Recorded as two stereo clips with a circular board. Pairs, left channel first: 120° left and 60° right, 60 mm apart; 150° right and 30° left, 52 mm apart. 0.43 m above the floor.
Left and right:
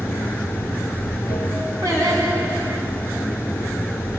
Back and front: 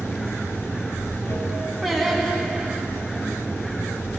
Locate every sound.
0.0 s running water: 115° right, 2.5 m
1.8 s singing: 60° right, 2.5 m